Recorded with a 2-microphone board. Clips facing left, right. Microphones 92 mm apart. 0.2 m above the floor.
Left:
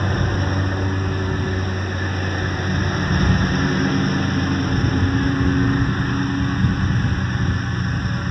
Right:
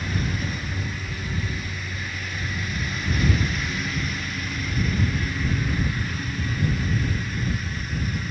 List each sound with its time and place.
0.0 s a lawn mower: 45° left (ahead or behind)